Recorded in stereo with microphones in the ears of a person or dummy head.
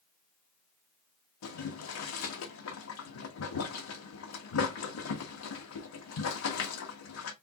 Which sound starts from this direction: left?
Boiling, at 1.4 s.